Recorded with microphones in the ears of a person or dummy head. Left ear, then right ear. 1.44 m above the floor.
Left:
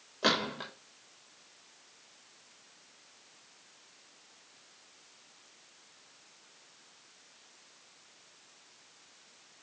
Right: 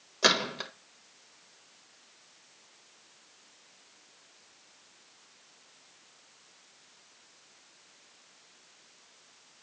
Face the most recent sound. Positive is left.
turn(degrees=-70)  # may be behind; listen again after turning